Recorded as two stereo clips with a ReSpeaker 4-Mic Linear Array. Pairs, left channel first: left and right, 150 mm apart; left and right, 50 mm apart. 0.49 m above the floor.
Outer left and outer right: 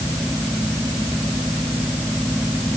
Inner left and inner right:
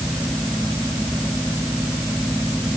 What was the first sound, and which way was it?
Only background noise.